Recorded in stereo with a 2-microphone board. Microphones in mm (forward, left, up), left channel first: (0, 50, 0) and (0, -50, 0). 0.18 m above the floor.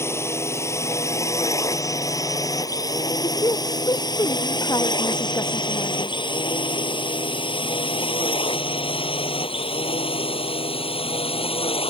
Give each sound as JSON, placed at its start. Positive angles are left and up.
{"t": 0.0, "sound": "a drone", "side_deg": 25}
{"t": 3.2, "sound": "a woman speaking", "side_deg": 40}